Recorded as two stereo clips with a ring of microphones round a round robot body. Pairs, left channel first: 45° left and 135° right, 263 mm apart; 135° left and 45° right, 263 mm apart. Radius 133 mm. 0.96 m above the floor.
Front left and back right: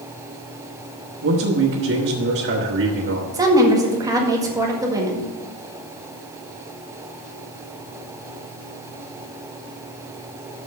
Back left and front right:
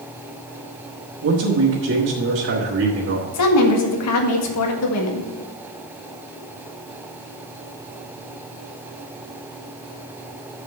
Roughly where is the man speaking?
Right.